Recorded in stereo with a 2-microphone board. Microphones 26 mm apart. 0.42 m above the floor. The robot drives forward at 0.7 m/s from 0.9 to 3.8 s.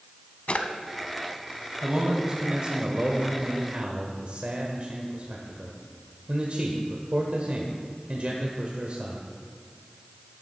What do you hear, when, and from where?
0.5 s a drawer: 55° left (ahead or behind), 0.7 m
1.8 s a man speaking: 30° right (ahead or behind), 1.7 m; by 9.2 s 50° right (ahead or behind), 1.1 m